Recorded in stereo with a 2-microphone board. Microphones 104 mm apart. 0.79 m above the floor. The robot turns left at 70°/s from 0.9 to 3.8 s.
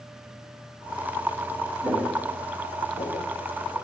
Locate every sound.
1.8 s footsteps: 15° right (ahead or behind), 2 m; by 3.8 s 35° left (ahead or behind), 3 m